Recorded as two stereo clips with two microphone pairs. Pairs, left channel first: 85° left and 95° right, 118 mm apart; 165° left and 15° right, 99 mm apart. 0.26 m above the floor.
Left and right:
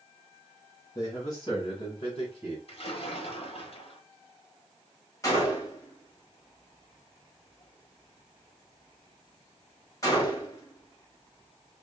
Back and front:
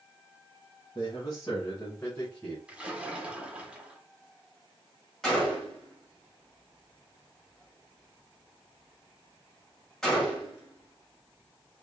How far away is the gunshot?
About 1.5 m.